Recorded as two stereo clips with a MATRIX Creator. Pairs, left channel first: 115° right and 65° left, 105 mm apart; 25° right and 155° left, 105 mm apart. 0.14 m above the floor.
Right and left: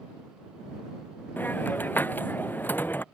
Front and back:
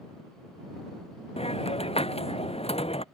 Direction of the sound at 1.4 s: 40° right.